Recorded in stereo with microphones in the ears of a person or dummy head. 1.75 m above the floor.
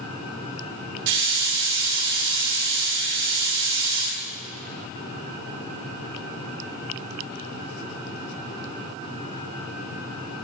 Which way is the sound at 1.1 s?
65° right (ahead or behind).